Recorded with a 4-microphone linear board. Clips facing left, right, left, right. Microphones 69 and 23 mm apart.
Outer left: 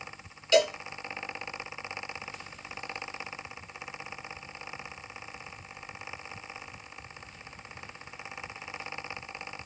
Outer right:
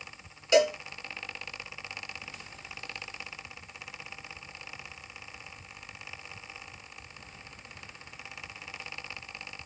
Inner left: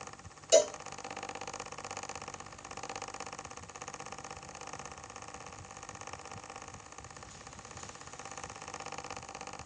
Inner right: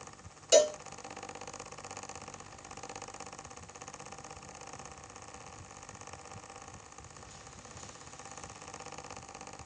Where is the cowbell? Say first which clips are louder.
Outer right 1 dB, inner right 1 dB; 20° right (ahead or behind), 1.5 m.